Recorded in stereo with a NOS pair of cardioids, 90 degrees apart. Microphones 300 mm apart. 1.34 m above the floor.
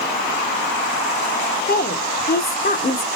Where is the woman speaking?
30° left, 1.1 m.